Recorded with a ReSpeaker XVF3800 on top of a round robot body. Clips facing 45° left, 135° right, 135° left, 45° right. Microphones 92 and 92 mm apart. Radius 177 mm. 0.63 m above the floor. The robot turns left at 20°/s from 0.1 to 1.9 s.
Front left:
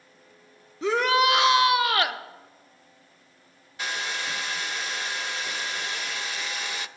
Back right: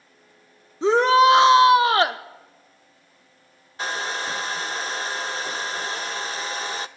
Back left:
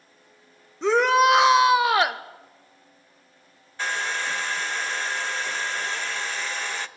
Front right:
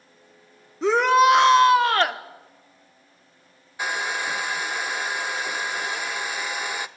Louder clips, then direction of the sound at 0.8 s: Back right 7 dB, front right 1 dB; 130° right.